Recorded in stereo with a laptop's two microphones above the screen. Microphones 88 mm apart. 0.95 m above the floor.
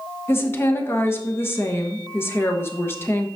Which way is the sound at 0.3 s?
30° left (ahead or behind).